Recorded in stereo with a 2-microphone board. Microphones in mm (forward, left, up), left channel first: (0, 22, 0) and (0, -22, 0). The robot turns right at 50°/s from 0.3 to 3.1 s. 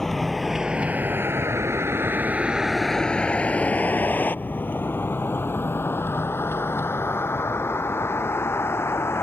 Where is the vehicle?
10° left (ahead or behind); by 9.2 s 75° left (ahead or behind).